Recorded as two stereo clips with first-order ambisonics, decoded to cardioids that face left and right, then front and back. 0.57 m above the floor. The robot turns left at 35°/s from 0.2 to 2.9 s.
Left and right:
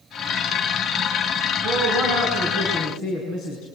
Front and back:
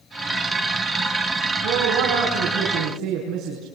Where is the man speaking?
175° left, 5.5 m; by 3.7 s 130° left, 5.5 m.